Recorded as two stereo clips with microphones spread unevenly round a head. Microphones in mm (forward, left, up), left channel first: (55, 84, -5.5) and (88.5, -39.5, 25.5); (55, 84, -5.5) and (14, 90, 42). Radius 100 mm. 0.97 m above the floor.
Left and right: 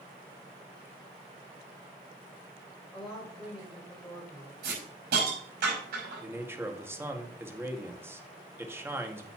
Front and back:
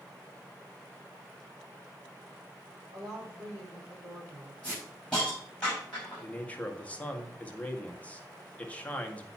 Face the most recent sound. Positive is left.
turn(degrees=5)